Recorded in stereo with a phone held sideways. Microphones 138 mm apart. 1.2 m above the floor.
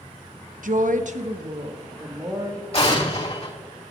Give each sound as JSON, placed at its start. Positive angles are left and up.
{"t": 0.6, "sound": "a woman speaking", "side_deg": -75, "distance_m": 0.9}
{"t": 2.7, "sound": "an explosion", "side_deg": 45, "distance_m": 3.0}